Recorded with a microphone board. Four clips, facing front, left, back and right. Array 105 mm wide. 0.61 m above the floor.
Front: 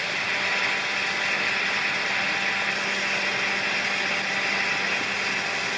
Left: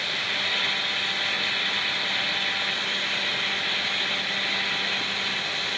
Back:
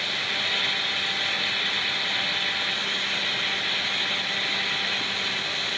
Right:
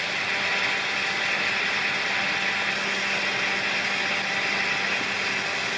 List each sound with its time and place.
Only background noise.